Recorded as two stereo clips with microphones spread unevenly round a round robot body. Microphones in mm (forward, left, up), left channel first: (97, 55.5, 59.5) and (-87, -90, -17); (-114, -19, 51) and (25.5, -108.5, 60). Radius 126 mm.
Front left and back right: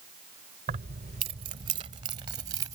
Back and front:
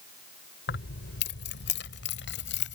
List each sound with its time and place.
0.7 s keys jangling: 155° left; by 2.8 s 145° left